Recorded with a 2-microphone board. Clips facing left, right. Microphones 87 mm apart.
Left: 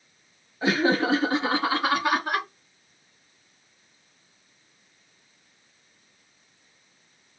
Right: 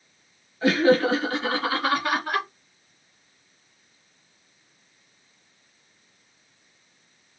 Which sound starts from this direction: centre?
Laughter, at 0.6 s.